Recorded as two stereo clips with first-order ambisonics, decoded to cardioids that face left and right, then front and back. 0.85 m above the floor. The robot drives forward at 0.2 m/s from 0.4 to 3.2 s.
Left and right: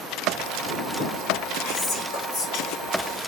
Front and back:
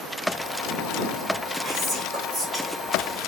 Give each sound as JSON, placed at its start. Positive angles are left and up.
{"t": 1.6, "sound": "whispering", "azimuth_deg": 105, "distance_m": 1.6}